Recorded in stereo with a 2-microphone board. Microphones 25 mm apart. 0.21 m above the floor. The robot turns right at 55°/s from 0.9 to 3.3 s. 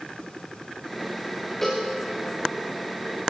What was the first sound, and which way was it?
A cowbell, 20° left (ahead or behind).